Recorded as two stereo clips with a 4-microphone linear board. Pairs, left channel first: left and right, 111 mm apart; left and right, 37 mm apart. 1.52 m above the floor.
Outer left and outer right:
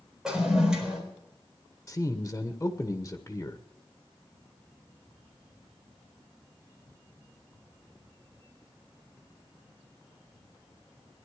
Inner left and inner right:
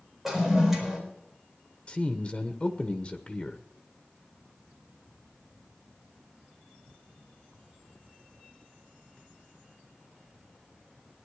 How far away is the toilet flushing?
About 4 m.